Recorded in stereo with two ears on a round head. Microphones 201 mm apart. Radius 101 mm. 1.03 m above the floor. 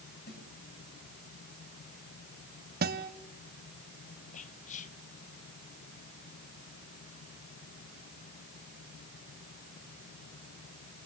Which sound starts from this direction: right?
A guitar, at 2.8 s.